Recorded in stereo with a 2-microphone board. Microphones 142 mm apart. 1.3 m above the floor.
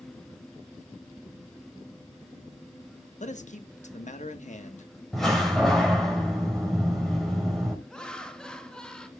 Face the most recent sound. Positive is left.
turn(degrees=5)  # may be behind; listen again after turning